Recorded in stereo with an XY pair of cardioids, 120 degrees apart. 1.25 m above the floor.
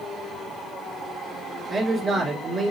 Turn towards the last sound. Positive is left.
turn(degrees=-35)